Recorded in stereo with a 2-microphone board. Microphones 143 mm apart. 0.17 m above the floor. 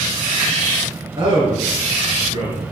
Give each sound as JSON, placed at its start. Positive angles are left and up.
{"t": 1.2, "sound": "a man speaking", "side_deg": -35, "distance_m": 2.5}